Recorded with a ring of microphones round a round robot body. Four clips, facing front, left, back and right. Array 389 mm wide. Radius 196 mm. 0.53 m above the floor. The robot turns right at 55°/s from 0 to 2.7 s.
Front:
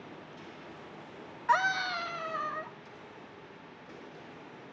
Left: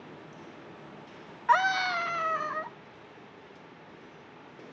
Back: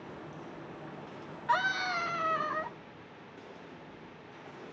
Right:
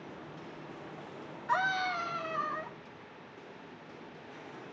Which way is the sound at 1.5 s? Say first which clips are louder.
Left 6 dB, front 2 dB; 75° left.